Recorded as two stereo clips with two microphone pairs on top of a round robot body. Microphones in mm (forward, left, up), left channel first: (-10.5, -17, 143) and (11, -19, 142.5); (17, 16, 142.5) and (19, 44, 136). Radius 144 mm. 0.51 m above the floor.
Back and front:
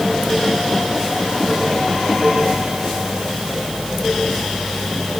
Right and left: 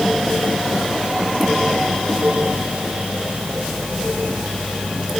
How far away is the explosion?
I don't hear an explosion.